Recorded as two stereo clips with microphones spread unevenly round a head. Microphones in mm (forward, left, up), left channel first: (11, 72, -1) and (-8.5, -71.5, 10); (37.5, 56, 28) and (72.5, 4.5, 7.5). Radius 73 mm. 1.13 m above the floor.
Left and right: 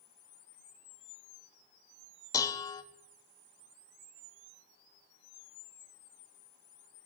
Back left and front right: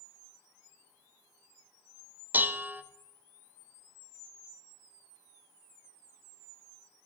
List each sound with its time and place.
2.3 s dishes clattering: 10° left, 0.9 m